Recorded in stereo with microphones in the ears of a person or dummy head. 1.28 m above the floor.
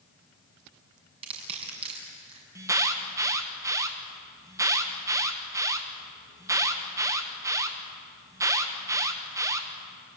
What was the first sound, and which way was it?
Crushing, 35° right (ahead or behind).